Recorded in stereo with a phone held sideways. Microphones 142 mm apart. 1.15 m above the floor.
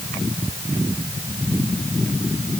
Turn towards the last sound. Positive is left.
No sound to turn to.